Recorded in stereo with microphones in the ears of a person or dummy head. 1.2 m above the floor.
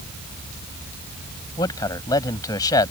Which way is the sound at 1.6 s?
25° left (ahead or behind).